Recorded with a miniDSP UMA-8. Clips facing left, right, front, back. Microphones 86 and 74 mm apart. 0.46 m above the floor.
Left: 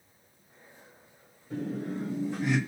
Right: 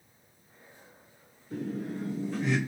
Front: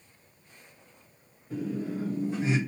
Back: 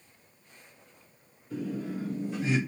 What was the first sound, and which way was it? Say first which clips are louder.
Laughter: left 1 dB, front 2 dB; 55° left.